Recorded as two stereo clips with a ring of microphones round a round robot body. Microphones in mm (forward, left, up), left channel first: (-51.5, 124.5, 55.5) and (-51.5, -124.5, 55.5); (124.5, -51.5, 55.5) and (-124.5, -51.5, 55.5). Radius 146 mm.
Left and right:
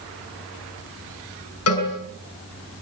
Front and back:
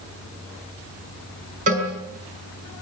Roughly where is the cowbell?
Behind left.